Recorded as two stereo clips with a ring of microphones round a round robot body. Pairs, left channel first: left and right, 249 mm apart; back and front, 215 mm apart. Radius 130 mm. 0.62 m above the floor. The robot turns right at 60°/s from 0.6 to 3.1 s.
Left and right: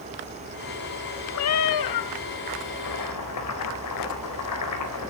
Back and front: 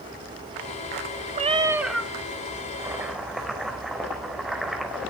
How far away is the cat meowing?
About 1.0 m.